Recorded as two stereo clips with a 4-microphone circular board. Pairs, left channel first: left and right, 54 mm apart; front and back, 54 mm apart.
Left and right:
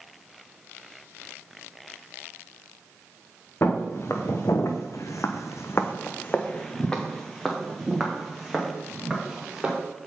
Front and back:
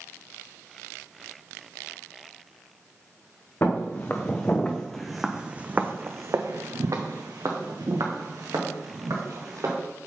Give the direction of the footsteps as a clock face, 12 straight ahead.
10 o'clock.